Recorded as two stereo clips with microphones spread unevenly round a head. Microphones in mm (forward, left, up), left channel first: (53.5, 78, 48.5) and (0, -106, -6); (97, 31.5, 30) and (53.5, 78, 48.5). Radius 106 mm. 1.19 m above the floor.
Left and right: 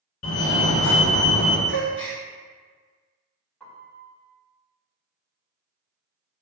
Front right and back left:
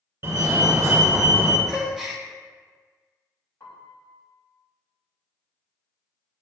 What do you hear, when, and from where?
0.2 s a fire alarm: 75° left, 2.0 m
1.7 s a gasp: 45° left, 1.5 m
3.6 s a piano: 5° right, 2 m